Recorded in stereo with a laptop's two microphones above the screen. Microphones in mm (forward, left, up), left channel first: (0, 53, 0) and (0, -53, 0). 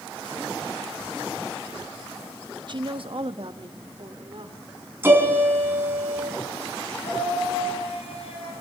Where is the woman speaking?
45° right (ahead or behind), 0.7 m; by 4.6 s 60° right (ahead or behind), 3 m.